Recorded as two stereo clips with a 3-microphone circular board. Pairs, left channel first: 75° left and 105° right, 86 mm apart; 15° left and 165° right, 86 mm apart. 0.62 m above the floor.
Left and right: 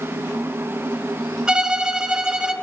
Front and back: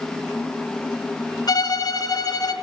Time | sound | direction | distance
1.5 | a violin | 25° right | 0.6 m